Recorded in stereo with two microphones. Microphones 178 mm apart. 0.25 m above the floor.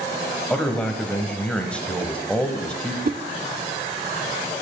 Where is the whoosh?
55° right (ahead or behind), 0.6 m.